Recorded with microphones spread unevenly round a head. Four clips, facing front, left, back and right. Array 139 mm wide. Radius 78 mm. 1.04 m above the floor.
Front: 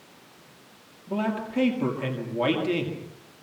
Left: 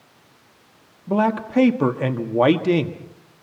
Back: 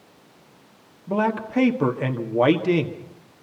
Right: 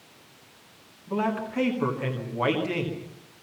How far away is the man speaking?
About 2 m.